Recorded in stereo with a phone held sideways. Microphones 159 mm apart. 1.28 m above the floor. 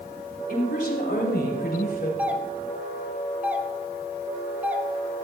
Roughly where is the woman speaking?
Left.